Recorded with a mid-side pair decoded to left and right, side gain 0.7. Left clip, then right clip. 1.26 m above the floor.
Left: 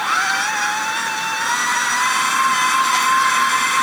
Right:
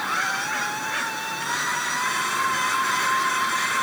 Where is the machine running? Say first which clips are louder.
Left 7 dB; 35° left.